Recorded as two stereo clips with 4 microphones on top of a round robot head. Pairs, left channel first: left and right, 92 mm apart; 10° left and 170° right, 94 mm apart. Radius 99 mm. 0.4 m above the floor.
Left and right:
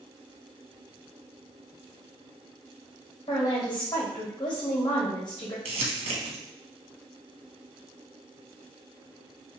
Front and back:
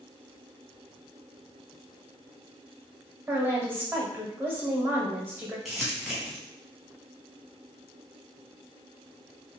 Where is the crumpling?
80° right, 0.8 m.